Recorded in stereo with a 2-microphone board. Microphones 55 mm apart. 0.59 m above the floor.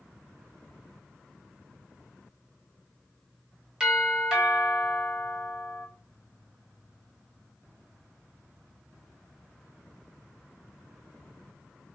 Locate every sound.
3.8 s a doorbell: 10° right (ahead or behind), 1.6 m